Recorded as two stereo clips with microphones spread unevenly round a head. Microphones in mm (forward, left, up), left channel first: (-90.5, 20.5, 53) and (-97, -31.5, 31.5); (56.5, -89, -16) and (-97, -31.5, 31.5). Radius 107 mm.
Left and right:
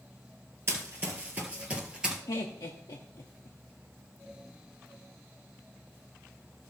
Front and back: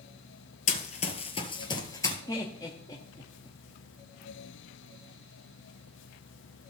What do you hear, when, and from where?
0.7 s running footsteps: 25° right, 1.6 m; by 2.2 s 85° left, 1.5 m
2.3 s laughter: 45° left, 0.6 m